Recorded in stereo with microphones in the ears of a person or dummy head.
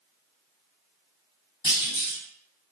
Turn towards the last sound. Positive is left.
turn(degrees=30)  # may be behind; listen again after turning